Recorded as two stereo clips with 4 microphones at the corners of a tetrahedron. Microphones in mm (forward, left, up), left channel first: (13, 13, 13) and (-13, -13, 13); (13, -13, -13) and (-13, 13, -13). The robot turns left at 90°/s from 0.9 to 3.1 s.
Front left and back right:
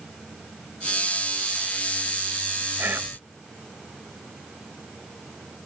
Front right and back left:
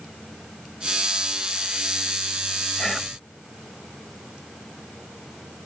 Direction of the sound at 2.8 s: 120° right.